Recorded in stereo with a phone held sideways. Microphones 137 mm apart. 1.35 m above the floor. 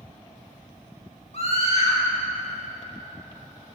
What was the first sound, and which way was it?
A scream, 50° left (ahead or behind).